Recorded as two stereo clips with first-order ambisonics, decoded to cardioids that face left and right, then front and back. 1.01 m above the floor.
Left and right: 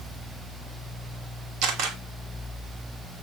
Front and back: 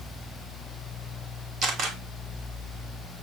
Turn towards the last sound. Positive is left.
turn(degrees=-125)